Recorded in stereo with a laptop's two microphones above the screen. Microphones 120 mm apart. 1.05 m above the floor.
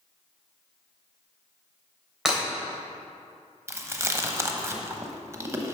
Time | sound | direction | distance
2.2 | breaking glass | 5° right (ahead or behind) | 3 m
3.7 | chewing | 25° right (ahead or behind) | 0.9 m